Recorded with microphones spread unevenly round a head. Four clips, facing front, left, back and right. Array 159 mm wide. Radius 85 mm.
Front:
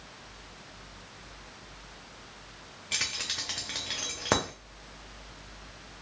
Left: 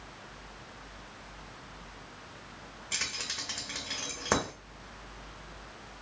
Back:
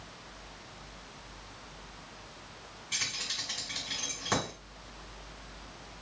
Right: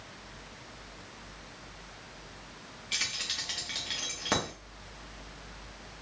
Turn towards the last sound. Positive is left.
turn(degrees=15)